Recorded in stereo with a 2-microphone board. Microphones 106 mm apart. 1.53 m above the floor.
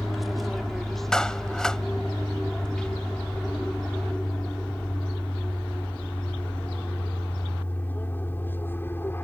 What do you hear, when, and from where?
0.0 s an aircraft: centre (ahead or behind); by 9.2 s 20° left (ahead or behind)
1.1 s a clap: 5° left (ahead or behind)